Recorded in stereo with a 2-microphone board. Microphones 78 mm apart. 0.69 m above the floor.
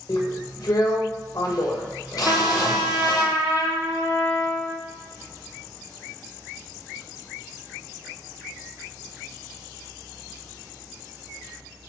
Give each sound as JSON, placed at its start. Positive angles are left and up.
{"t": 0.1, "sound": "a drill", "side_deg": 60, "distance_m": 1.7}
{"t": 2.2, "sound": "a trumpet", "side_deg": -25, "distance_m": 3.5}